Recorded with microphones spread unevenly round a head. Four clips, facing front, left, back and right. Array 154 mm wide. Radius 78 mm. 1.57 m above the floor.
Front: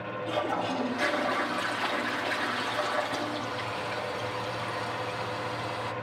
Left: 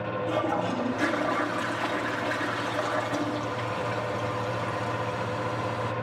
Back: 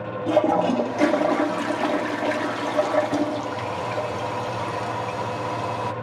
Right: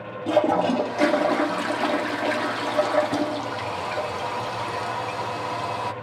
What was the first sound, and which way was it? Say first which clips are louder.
A toilet flushing: right 9 dB, back 11 dB; 145° right.